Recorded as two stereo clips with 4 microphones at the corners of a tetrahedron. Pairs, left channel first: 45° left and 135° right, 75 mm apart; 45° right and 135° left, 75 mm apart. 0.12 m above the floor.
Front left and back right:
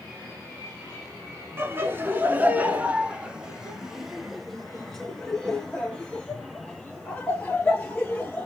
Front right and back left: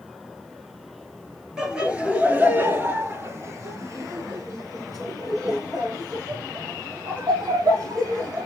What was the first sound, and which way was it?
Laughter, 150° right.